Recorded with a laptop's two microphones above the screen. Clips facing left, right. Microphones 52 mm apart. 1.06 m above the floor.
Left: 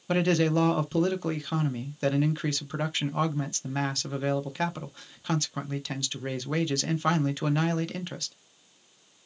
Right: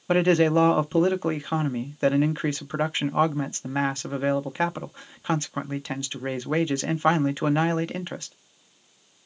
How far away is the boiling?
No boiling in this recording.